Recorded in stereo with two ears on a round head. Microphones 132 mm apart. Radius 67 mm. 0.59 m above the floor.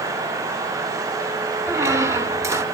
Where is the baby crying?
No baby crying in this recording.